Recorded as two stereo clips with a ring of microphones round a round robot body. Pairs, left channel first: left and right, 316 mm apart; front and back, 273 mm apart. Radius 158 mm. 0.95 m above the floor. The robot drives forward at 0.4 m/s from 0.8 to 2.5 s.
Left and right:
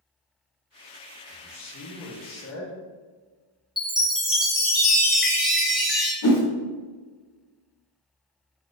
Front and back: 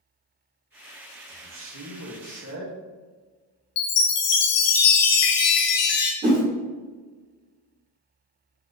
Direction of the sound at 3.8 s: Straight ahead.